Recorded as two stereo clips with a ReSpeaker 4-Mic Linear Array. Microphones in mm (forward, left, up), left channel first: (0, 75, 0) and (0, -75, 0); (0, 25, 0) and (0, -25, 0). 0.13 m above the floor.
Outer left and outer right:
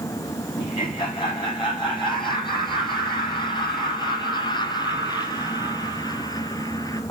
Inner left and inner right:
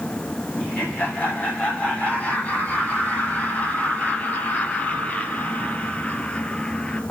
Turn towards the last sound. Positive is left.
turn(degrees=25)  # may be behind; listen again after turning